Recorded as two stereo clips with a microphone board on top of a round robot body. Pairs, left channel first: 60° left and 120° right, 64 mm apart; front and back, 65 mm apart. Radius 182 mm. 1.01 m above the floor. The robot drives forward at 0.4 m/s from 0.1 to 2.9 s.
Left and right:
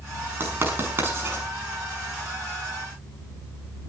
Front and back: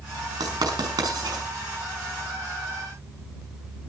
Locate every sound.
0.4 s writing: 175° right, 5.5 m